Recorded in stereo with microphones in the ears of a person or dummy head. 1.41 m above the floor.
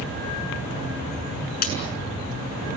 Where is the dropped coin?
45° left (ahead or behind), 6.5 m.